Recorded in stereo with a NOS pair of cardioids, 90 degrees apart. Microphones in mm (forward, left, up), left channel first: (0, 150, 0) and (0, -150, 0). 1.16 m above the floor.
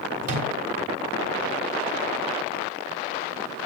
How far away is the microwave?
About 3.5 m.